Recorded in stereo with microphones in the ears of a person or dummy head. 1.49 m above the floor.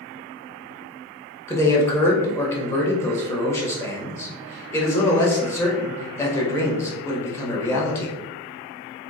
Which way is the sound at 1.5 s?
15° left (ahead or behind).